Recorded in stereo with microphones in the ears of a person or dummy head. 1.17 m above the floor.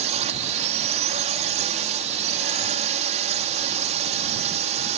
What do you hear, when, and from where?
0.0 s a drone: 35° right (ahead or behind)